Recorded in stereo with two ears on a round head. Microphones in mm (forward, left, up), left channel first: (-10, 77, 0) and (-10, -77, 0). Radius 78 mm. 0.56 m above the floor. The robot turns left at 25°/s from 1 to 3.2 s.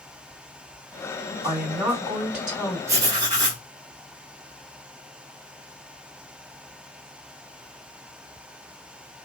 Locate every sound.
1.4 s a woman speaking: 150° right, 1.9 m; by 2.8 s 175° left, 1.9 m
2.9 s writing: 20° right (ahead or behind), 0.8 m; by 3.6 s 25° right (ahead or behind), 0.8 m